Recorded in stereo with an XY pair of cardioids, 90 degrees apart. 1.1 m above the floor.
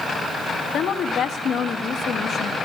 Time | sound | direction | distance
0.7 | a woman speaking | 65° left | 1.3 m